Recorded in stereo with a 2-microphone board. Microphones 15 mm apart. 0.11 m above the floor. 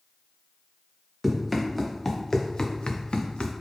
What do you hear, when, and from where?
1.2 s running footsteps: centre (ahead or behind), 1.4 m; by 3.5 s 85° left, 0.9 m